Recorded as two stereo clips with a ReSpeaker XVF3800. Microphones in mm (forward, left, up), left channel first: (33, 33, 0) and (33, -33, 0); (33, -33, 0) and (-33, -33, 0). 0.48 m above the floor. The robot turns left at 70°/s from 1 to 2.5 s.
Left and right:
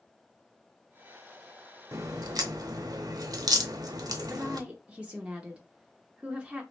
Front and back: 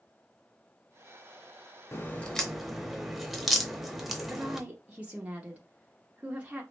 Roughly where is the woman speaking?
Behind right.